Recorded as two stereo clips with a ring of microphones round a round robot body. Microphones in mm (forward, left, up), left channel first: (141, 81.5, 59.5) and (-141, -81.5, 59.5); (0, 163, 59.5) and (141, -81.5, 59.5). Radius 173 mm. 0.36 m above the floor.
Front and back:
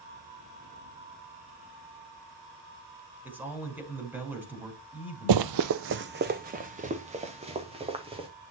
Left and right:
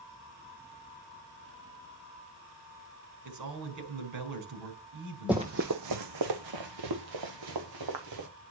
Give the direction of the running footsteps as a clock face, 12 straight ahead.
5 o'clock.